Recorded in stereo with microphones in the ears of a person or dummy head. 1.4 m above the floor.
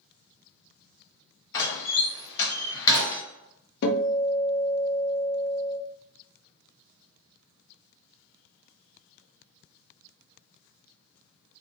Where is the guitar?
55° left (ahead or behind), 0.6 m.